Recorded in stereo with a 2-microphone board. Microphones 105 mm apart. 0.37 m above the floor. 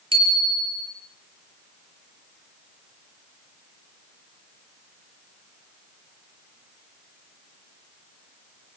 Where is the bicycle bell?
65° right (ahead or behind), 5.5 m.